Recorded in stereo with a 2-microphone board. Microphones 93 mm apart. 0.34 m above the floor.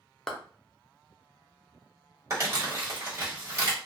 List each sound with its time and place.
0.3 s a clap: 5° left (ahead or behind), 0.6 m
2.3 s crumpling: 30° right (ahead or behind), 1.4 m